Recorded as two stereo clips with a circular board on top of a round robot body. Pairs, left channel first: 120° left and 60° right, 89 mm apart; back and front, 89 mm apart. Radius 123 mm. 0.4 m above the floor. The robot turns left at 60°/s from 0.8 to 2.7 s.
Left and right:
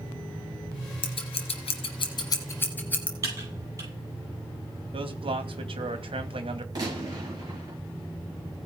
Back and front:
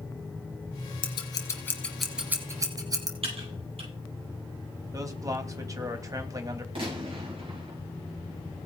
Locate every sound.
1.0 s scissors: 150° left, 2.5 m; by 3.1 s 50° left, 2.5 m
3.2 s typing on a keyboard: 5° right, 8.5 m
4.9 s a man speaking: 50° right, 2.5 m
6.8 s a gunshot: 20° right, 8.5 m